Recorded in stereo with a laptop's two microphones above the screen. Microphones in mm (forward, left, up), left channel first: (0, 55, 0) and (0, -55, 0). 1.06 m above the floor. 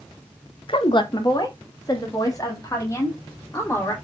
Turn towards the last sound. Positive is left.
turn(degrees=25)  # may be behind; listen again after turning